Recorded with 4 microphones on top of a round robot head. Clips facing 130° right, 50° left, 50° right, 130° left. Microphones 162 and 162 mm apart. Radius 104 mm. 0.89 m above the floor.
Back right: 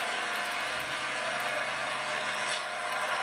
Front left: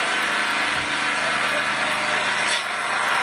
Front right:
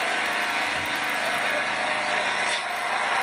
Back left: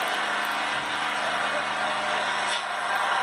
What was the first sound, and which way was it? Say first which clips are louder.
An engine running: front left 8 dB, front right 1 dB; 25° left.